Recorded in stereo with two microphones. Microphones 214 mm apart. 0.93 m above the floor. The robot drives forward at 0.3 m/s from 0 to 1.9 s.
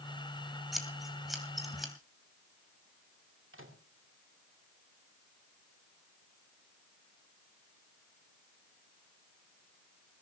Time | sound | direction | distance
0.7 | scissors | centre (ahead or behind) | 2.5 m
3.5 | a microwave | 70° right (ahead or behind) | 2.5 m